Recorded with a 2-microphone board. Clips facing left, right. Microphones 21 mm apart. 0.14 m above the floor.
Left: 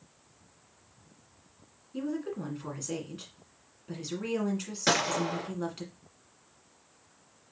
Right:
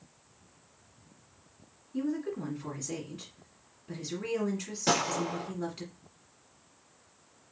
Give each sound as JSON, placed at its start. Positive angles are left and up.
{"t": 1.9, "sound": "a woman speaking", "side_deg": 15, "distance_m": 1.7}
{"t": 4.9, "sound": "a gunshot", "side_deg": 30, "distance_m": 1.8}